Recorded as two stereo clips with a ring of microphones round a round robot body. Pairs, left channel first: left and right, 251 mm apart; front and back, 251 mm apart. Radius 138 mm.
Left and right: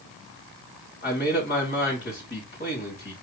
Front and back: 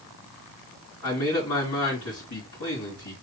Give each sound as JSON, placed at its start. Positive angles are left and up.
{"t": 1.0, "sound": "a man speaking", "azimuth_deg": 40, "distance_m": 3.5}